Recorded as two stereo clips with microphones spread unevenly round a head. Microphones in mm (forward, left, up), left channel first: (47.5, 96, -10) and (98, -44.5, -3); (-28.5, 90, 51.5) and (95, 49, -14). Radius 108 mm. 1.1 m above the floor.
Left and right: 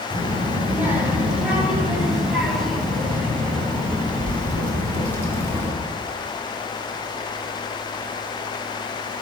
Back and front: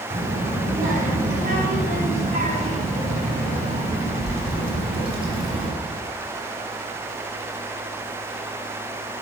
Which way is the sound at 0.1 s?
Straight ahead.